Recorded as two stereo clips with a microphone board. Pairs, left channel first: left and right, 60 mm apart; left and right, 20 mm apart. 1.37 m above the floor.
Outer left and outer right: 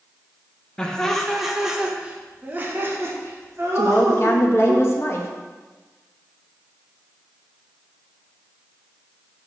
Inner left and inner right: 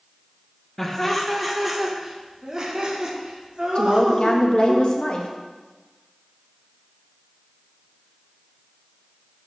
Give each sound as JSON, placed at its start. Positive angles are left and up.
{"t": 0.8, "sound": "laughter", "side_deg": 10, "distance_m": 1.6}
{"t": 3.8, "sound": "a woman speaking", "side_deg": 40, "distance_m": 1.8}